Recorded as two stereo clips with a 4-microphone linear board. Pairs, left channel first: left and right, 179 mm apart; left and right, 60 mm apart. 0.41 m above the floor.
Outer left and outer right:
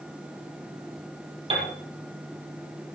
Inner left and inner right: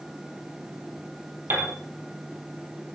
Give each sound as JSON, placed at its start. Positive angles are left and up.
{"t": 1.5, "sound": "a piano", "side_deg": -30, "distance_m": 4.5}